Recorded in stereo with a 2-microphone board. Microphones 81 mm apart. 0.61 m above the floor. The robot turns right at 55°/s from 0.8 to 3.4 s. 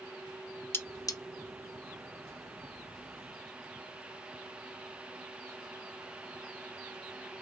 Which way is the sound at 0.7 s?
30° left (ahead or behind).